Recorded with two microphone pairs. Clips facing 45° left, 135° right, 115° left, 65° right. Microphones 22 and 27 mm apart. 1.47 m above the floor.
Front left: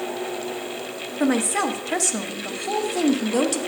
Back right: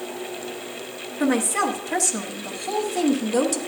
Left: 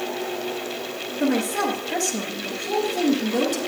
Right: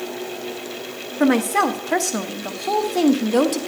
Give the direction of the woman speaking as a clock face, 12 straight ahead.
1 o'clock.